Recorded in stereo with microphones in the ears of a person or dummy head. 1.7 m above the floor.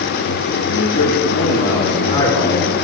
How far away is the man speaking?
About 2.5 m.